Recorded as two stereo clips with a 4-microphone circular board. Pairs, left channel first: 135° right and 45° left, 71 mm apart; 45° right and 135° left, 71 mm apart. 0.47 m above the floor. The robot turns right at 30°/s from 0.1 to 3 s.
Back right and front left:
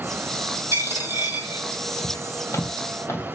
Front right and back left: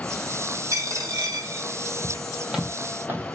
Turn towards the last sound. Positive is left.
turn(degrees=175)